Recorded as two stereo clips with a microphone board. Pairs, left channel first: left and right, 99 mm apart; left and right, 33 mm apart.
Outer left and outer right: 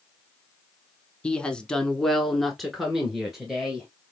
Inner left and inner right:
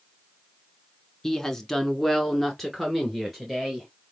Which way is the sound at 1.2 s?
10° left (ahead or behind).